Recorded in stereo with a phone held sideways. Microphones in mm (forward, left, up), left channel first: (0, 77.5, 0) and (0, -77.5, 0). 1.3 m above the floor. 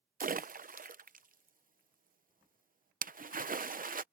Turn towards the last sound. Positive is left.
turn(degrees=-65)  # may be behind; listen again after turning